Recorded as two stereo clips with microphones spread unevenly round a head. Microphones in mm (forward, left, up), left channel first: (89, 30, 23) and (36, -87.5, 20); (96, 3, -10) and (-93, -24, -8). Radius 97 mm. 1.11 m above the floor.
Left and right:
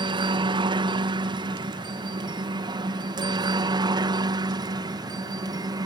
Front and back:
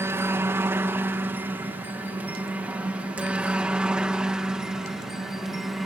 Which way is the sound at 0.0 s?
100° right.